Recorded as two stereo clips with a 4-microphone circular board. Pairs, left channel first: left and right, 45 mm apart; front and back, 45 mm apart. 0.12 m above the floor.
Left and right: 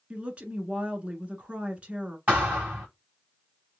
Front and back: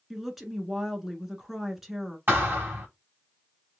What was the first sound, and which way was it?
A woman speaking, 105° right.